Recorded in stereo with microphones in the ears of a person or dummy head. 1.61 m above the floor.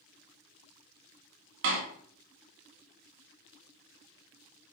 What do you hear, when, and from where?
1.6 s a door slam: 75° right (ahead or behind), 2.5 m